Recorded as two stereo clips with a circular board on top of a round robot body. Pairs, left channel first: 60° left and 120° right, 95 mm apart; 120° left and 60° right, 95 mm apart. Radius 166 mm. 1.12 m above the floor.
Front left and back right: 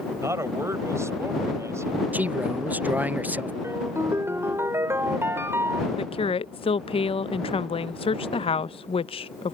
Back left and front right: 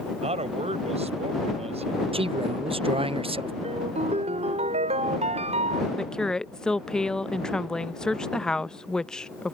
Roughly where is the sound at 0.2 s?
Ahead right.